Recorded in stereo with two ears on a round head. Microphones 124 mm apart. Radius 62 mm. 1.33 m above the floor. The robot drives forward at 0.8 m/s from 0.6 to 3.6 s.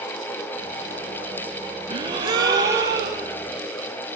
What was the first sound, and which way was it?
A gasp, 35° right (ahead or behind).